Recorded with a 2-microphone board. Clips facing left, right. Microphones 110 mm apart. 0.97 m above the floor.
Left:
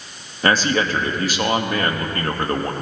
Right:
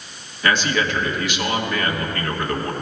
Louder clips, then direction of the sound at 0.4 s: Left 2 dB; 40° left (ahead or behind).